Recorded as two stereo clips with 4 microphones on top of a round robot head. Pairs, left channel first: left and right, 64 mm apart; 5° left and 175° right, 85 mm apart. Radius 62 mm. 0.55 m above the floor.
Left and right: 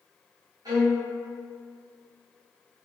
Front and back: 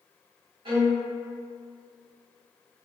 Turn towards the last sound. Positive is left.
turn(degrees=-130)